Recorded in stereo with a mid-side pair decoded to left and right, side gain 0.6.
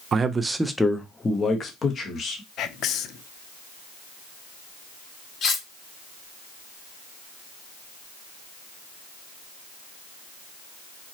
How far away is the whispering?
About 0.6 m.